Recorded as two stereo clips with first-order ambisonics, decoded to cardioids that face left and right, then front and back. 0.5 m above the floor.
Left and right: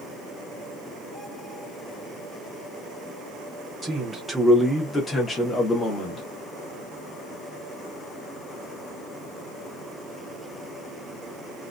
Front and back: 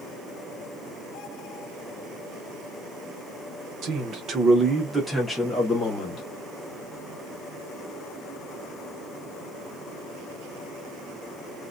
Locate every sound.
3.8 s a man speaking: 165° right, 1.0 m; by 6.2 s 45° left, 1.1 m